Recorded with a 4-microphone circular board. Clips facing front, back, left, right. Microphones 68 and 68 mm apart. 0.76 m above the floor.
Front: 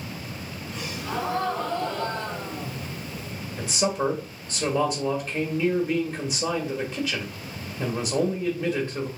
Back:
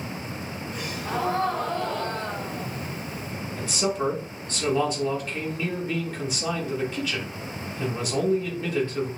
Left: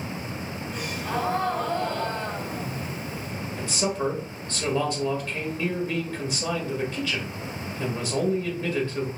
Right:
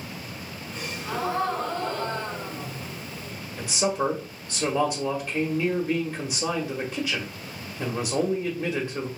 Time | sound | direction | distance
0.7 | a gasp | 120° left | 2 m
3.6 | a man speaking | 60° right | 1.0 m